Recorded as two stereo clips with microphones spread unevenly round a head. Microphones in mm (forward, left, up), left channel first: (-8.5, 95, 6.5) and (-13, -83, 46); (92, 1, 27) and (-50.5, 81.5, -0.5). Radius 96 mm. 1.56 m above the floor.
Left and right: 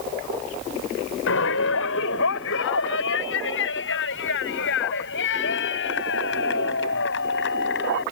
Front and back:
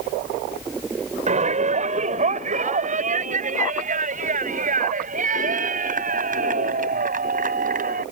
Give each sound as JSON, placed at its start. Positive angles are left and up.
{"t": 1.3, "sound": "a shout", "azimuth_deg": 105}